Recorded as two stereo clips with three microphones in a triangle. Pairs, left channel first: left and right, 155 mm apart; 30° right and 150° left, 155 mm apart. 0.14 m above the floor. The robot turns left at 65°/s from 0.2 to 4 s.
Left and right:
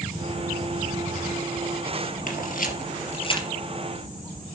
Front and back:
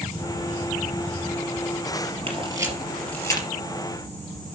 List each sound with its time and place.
2.3 s a camera shutter: 105° left, 3 m; by 3.5 s 25° left, 3 m